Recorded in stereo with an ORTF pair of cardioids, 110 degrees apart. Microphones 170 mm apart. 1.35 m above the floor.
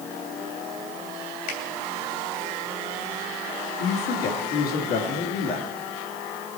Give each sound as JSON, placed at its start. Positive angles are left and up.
{"t": 1.5, "sound": "a finger snap", "azimuth_deg": 65, "distance_m": 3.0}
{"t": 3.8, "sound": "a man speaking", "azimuth_deg": 65, "distance_m": 2.0}